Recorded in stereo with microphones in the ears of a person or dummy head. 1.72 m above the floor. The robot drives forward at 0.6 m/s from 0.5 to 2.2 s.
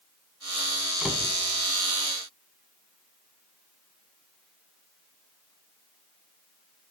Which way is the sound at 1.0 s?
Centre (ahead or behind).